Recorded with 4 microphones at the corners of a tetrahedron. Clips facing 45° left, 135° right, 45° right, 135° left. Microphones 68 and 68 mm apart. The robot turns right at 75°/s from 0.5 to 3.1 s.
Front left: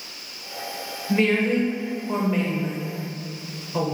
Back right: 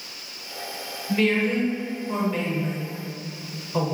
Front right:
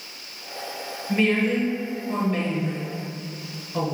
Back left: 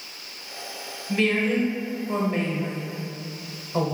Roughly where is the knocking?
I don't hear knocking.